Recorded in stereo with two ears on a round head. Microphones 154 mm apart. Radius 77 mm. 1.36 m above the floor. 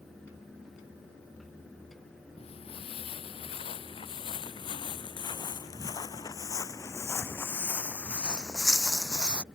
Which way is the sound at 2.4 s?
35° left (ahead or behind).